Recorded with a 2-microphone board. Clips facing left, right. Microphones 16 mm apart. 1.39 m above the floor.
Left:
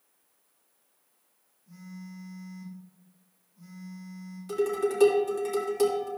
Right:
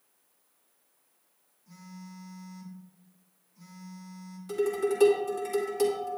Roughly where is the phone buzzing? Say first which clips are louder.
Left 2 dB; right.